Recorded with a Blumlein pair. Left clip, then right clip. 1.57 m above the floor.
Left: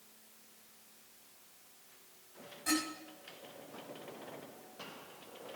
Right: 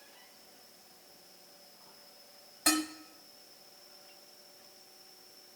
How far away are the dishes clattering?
About 5 m.